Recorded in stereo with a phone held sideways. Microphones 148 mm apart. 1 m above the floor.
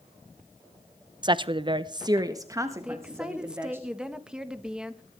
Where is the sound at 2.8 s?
5° right (ahead or behind), 1.3 m.